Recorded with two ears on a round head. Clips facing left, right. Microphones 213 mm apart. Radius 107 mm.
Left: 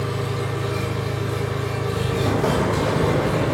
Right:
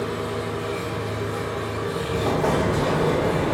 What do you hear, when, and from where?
0.0 s an engine running: 45° left (ahead or behind), 1.0 m
2.1 s an explosion: 20° left (ahead or behind), 0.7 m